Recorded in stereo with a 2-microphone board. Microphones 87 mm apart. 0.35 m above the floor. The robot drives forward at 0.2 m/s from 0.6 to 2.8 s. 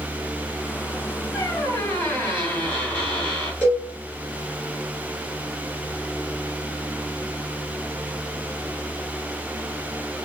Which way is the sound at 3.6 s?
25° left (ahead or behind).